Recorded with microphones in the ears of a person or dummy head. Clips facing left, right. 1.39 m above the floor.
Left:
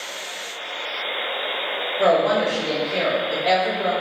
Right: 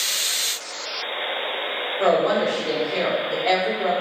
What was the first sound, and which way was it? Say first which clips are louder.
A woman speaking: left 1 dB; 20° left (ahead or behind).